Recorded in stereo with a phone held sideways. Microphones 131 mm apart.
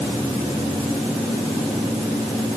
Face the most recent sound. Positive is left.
No sound to turn to.